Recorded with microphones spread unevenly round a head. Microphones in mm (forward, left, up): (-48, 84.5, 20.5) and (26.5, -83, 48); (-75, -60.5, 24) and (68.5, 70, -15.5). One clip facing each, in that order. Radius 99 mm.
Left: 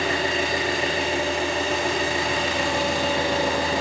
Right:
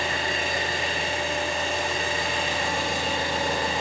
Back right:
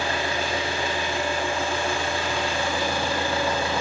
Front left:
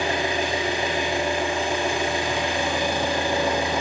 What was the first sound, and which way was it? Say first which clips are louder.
An engine running: left 5 dB, front left 3 dB; 125° left.